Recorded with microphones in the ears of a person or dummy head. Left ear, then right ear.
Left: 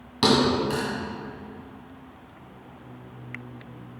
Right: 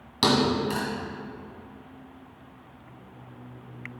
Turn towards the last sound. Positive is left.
turn(degrees=-10)  # may be behind; listen again after turning